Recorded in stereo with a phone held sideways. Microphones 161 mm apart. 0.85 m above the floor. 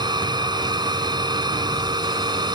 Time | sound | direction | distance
0.0 | a machine running | 25° right (ahead or behind) | ?